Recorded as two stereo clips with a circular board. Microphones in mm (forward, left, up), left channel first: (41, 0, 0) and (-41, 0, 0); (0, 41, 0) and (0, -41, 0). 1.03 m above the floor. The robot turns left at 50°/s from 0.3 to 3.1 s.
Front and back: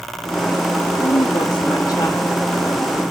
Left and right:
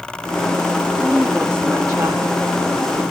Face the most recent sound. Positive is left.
turn(degrees=-105)